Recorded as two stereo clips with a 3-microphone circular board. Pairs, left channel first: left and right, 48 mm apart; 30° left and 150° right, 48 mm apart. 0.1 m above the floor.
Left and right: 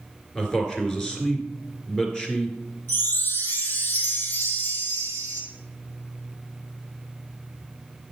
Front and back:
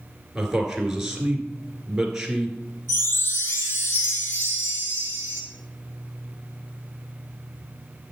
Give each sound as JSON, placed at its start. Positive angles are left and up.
{"t": 0.3, "sound": "a man speaking", "azimuth_deg": 145, "distance_m": 1.9}
{"t": 2.9, "sound": "a chime", "azimuth_deg": 50, "distance_m": 2.0}